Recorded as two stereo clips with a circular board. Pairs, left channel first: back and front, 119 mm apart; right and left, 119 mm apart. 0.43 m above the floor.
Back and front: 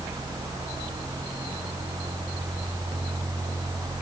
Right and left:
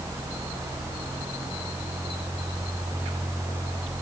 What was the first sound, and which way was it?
Only background noise.